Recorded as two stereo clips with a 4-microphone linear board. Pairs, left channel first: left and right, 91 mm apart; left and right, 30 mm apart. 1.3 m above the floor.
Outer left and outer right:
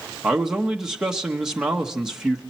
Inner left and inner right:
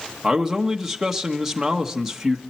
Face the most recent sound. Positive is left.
turn(degrees=-5)  # may be behind; listen again after turning